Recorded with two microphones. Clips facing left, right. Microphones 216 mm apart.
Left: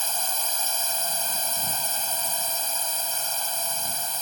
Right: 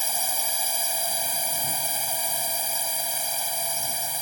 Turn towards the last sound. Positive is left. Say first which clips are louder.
# right 1 dB
turn(degrees=-10)  # may be behind; listen again after turning